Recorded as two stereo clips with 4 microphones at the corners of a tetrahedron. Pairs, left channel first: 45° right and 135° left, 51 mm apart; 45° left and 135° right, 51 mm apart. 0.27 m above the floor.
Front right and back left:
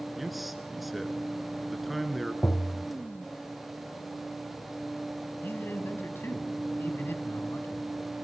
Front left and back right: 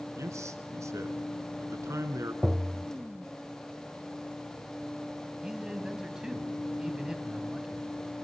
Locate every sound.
0.2 s a man speaking: 135° right, 3 m
2.4 s tapping: 60° right, 0.5 m
5.4 s a man speaking: 60° right, 2 m